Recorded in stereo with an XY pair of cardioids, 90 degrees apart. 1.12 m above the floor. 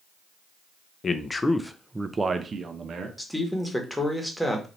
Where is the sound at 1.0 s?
45° left, 0.7 m; by 3.1 s 55° right, 1.0 m.